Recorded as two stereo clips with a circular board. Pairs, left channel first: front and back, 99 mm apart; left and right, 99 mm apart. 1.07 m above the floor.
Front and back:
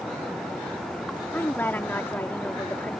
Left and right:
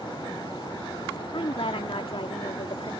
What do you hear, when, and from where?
1.3 s a woman speaking: 70° left